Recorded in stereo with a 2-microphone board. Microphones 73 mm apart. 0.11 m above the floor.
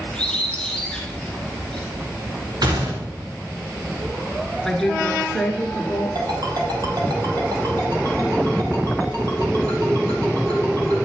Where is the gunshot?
65° right (ahead or behind), 2 m.